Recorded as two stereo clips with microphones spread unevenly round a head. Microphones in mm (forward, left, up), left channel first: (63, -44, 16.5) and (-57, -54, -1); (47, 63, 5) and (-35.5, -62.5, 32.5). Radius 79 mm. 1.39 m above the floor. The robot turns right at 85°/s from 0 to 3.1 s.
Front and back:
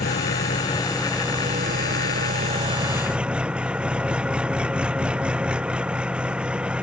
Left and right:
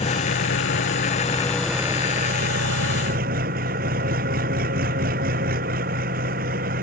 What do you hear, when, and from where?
0.0 s an engine running: 5° left; by 6.8 s 95° right